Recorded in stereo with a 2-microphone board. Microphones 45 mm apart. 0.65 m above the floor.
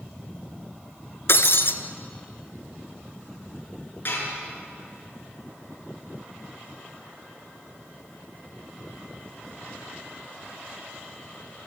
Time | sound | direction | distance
1.3 | breaking glass | 60° left (ahead or behind) | 1.1 m
4.0 | dishes clattering | 50° left (ahead or behind) | 6.5 m